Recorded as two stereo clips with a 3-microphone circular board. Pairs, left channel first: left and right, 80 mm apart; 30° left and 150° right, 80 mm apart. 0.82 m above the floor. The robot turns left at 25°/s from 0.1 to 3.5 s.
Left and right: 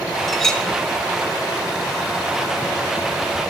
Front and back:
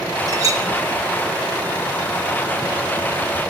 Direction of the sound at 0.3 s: Straight behind.